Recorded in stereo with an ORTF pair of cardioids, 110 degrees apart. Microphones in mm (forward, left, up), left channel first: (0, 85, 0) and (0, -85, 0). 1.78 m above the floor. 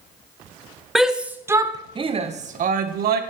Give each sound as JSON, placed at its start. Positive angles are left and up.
{"t": 0.9, "sound": "a shout", "azimuth_deg": 0, "distance_m": 2.5}